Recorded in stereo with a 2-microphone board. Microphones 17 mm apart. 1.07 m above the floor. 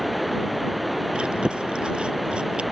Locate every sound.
0.0 s running water: 5° right (ahead or behind)
1.1 s chewing: 75° right (ahead or behind)